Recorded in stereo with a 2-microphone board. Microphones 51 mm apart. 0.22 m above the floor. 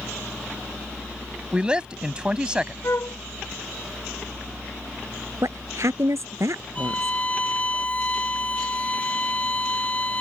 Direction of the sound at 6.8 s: 25° left (ahead or behind).